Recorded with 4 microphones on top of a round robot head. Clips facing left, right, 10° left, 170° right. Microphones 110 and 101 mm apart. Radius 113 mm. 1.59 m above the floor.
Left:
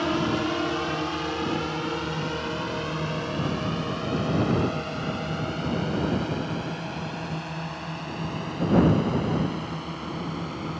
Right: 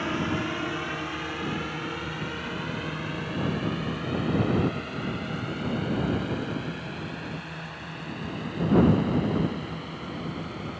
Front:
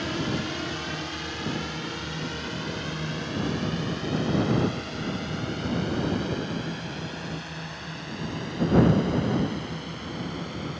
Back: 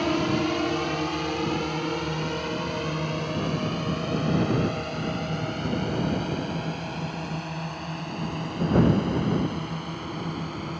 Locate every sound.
0.0 s a drone: 160° left; by 10.8 s 150° left